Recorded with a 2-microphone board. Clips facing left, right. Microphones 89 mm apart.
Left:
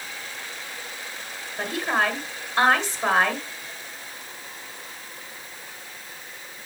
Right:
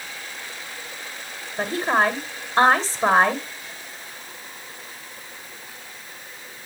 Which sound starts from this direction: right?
A woman speaking, at 1.6 s.